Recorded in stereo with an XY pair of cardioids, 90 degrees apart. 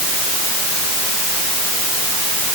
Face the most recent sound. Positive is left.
No sound to turn to.